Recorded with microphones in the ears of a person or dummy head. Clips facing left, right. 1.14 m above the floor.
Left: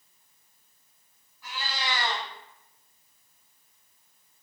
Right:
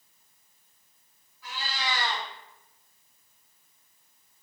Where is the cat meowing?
50° left (ahead or behind), 2 m.